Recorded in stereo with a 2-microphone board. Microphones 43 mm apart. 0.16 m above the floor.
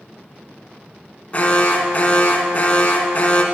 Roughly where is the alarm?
Left.